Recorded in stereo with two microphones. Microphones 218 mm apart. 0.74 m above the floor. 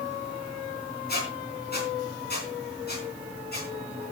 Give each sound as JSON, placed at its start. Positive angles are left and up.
{"t": 1.1, "sound": "a squeak", "side_deg": 50, "distance_m": 4.0}